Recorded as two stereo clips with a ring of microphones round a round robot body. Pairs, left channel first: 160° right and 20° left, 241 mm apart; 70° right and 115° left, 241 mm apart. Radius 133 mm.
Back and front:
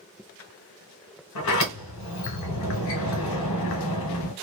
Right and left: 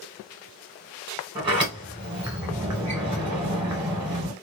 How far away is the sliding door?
About 1.5 m.